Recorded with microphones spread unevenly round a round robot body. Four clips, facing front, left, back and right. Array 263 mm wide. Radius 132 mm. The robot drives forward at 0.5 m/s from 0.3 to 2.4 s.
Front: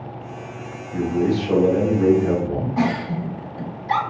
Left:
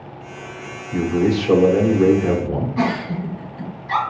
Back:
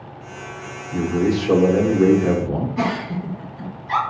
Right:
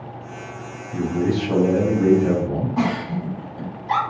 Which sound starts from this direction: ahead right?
A giggle, at 2.8 s.